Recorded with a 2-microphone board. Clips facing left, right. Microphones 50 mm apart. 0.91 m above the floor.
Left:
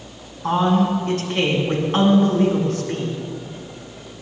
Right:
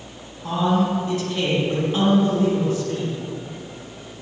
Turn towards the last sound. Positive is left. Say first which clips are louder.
# left 3 dB
turn(degrees=65)  # may be behind; listen again after turning